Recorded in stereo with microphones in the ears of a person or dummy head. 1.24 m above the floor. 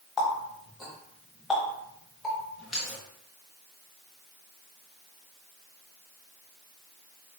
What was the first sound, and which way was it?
A running tap, centre (ahead or behind).